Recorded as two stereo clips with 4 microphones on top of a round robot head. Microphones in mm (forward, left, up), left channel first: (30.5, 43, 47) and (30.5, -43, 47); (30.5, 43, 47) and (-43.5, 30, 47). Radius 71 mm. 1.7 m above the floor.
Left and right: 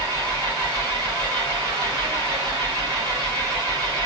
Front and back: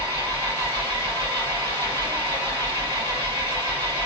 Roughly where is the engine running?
Behind right.